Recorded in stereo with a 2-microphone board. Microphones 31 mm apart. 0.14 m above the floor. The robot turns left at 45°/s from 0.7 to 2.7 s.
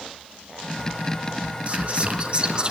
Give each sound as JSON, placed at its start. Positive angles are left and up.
{"t": 1.7, "sound": "whispering", "azimuth_deg": -85, "distance_m": 1.3}